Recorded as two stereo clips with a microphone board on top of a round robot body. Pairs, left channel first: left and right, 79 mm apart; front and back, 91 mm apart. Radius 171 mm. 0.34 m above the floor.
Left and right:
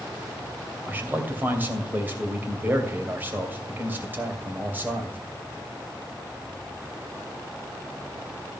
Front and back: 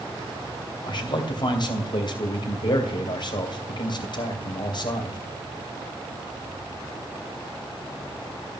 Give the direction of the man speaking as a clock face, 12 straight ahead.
1 o'clock.